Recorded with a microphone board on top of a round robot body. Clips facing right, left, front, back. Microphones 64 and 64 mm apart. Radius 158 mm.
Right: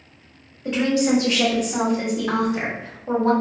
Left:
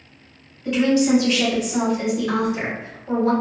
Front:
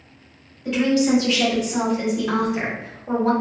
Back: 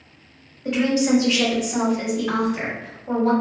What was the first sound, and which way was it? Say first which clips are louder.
A woman speaking: left 2 dB, front 1 dB; 125° right.